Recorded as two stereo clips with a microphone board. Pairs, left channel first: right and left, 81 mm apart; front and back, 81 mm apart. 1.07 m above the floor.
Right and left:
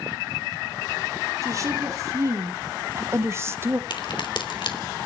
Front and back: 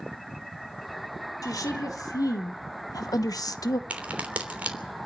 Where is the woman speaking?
40° left, 3.5 m; by 3.8 s 30° left, 1.0 m.